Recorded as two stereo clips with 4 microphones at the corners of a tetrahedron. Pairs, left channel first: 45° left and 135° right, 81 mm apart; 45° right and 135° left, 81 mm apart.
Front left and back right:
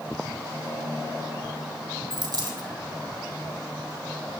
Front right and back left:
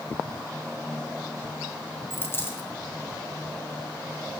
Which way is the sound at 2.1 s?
105° right.